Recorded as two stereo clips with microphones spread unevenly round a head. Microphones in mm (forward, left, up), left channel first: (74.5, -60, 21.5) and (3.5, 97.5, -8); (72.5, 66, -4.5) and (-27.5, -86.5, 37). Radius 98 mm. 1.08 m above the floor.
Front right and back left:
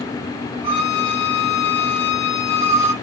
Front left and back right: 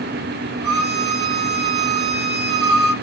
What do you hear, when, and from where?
0.6 s a violin: 100° right, 5.5 m